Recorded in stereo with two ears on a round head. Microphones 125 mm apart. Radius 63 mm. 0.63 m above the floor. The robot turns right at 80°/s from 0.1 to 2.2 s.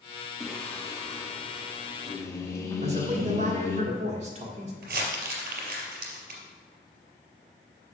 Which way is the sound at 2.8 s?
50° right (ahead or behind).